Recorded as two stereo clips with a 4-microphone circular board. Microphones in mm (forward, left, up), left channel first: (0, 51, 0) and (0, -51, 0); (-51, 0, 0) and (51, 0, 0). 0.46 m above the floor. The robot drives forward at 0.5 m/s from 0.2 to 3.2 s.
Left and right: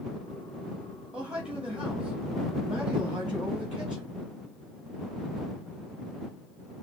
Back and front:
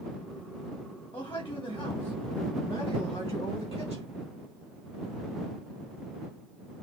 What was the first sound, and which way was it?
A man speaking, 170° right.